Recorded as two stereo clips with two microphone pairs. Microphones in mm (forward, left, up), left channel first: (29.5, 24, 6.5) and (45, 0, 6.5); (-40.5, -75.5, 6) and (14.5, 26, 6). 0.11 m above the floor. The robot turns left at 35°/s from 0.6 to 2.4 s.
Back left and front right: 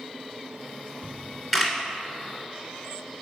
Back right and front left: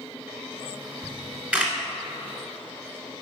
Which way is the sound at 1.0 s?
20° left.